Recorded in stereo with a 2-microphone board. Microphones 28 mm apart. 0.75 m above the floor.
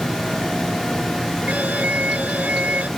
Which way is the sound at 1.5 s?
75° right (ahead or behind).